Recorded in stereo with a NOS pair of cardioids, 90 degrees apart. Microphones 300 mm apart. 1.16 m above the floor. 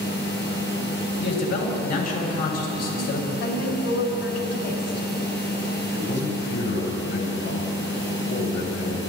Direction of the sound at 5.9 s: 60° left.